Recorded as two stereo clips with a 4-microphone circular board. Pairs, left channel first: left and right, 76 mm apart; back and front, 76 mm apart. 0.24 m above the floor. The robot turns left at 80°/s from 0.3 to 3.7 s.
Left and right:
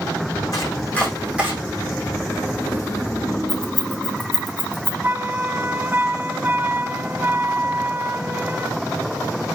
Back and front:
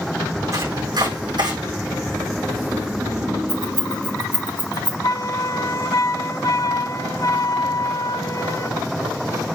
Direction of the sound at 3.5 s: 15° left.